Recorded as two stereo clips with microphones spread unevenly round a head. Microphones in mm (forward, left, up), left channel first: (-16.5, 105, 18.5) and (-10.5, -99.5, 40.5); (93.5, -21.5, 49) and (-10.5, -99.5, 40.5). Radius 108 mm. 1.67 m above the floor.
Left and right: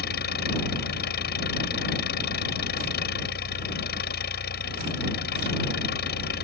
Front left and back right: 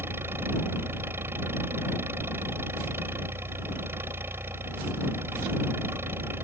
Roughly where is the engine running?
Behind left.